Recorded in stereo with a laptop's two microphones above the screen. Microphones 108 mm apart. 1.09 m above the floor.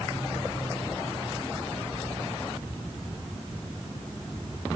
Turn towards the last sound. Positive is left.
No sound to turn to.